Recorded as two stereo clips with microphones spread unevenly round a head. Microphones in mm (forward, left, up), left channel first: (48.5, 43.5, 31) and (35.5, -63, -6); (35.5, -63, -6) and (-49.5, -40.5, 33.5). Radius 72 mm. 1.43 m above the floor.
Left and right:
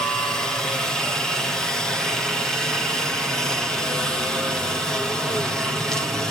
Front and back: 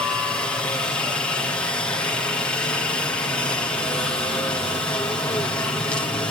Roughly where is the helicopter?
Ahead right.